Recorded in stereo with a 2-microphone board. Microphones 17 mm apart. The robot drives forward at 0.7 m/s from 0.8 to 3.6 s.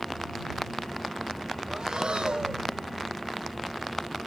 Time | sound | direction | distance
1.7 | breathing | 50° right (ahead or behind) | 0.6 m